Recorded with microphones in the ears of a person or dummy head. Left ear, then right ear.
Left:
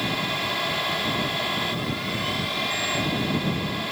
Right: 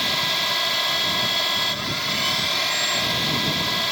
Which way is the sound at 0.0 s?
45° right (ahead or behind).